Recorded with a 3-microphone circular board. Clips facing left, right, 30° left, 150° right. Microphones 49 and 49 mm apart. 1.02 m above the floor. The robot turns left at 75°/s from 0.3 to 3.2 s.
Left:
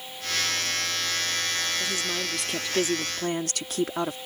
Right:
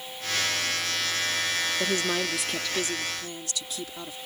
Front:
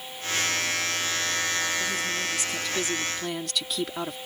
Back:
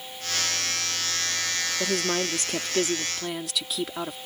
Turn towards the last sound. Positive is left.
turn(degrees=120)